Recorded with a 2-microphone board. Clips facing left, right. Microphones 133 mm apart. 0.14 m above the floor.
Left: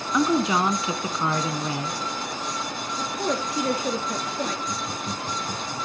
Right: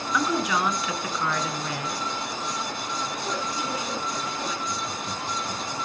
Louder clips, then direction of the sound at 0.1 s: Left 4 dB; 25° left (ahead or behind).